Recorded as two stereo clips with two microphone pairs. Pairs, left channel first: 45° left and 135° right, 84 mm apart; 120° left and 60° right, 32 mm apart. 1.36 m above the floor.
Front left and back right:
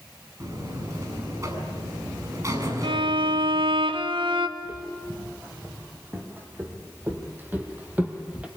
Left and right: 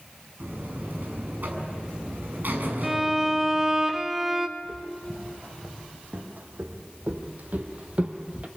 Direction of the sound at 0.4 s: 85° right.